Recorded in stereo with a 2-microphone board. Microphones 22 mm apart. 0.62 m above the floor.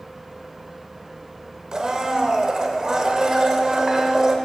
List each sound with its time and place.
1.7 s a blender: 30° right (ahead or behind), 0.7 m